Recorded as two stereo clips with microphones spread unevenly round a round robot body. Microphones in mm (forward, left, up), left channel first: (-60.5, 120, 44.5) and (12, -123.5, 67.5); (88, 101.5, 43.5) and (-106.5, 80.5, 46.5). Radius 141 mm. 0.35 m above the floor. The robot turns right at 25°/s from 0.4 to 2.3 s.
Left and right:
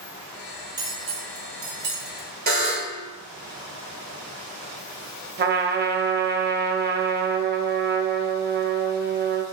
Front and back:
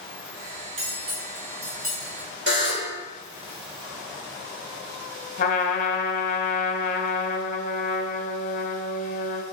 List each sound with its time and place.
0.8 s cutlery clinking: 150° right, 2 m; by 2.9 s 110° right, 2 m
2.5 s a buzzer: 130° right, 3.5 m
5.4 s a trumpet: 25° right, 1.0 m